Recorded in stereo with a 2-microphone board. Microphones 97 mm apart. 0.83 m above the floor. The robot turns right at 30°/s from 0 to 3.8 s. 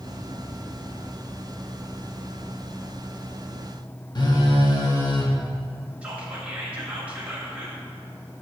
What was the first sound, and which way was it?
A phone buzzing, 45° left (ahead or behind).